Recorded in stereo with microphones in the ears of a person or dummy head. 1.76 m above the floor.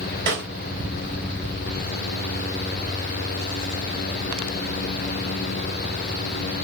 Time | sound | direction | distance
0.3 | a snare drum | 50° right (ahead or behind) | 4 m